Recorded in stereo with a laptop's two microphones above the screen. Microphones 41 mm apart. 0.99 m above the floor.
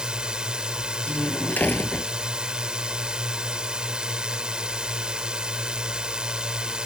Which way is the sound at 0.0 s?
20° right (ahead or behind).